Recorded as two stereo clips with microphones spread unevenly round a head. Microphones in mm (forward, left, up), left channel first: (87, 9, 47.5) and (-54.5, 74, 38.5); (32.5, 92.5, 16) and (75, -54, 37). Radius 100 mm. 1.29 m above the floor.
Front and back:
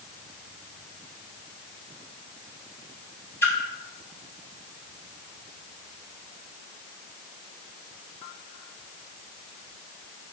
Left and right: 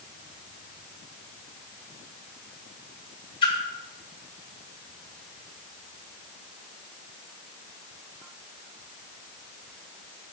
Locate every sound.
3.4 s a splash: 50° left, 2 m